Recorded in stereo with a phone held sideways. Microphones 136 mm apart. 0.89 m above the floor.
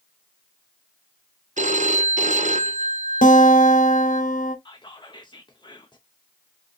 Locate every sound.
1.6 s a phone ringing: 65° right (ahead or behind), 0.5 m
3.2 s a guitar: 75° left (ahead or behind), 0.9 m
4.7 s whispering: 35° left (ahead or behind), 0.5 m